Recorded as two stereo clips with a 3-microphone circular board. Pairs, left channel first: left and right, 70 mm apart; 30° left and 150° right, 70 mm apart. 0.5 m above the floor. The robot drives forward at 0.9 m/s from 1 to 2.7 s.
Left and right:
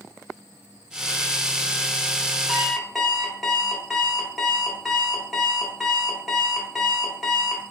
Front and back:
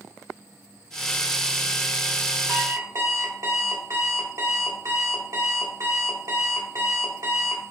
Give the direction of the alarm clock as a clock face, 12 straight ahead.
6 o'clock.